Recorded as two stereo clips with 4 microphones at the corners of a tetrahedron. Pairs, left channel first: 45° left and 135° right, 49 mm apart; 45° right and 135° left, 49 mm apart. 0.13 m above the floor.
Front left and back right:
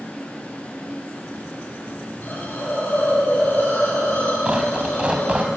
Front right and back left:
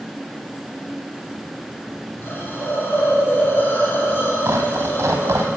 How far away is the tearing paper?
About 3 m.